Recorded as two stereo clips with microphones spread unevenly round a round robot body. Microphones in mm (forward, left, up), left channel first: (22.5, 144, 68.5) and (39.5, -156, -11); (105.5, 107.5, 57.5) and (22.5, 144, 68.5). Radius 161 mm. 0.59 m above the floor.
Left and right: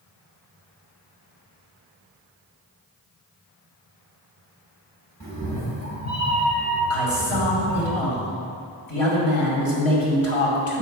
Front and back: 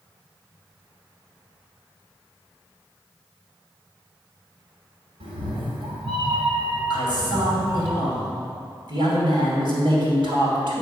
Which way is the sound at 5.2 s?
175° left.